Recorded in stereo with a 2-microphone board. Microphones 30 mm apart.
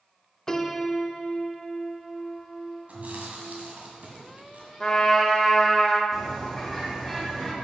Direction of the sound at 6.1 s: 10° left (ahead or behind).